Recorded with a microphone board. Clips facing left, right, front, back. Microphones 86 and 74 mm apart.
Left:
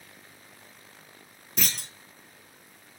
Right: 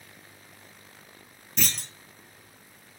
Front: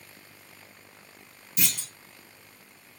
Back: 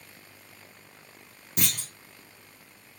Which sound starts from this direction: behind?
A clunk, at 1.6 s.